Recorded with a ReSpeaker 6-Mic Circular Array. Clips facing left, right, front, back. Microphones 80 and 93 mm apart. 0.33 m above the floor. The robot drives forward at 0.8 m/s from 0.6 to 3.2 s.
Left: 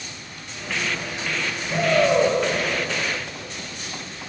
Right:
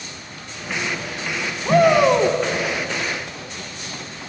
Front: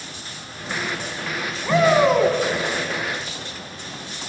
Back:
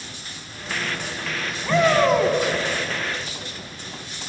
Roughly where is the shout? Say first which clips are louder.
Right 6 dB, front 1 dB; right.